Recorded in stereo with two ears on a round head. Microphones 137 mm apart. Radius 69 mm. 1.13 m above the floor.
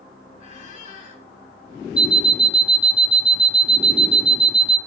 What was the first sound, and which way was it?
A squeak, 50° left (ahead or behind).